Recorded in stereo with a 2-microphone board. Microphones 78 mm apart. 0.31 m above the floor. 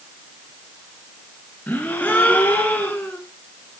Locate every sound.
1.7 s a gasp: 20° left (ahead or behind), 1.2 m